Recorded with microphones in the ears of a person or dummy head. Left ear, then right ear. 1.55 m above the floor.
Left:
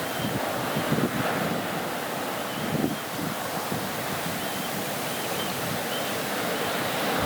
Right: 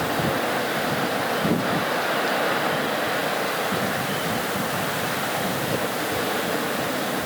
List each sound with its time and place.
Only background noise.